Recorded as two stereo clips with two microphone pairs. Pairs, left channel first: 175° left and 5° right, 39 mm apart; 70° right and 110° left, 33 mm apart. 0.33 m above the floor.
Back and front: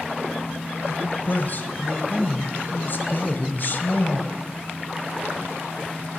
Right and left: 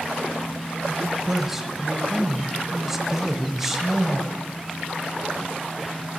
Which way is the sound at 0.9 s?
170° right.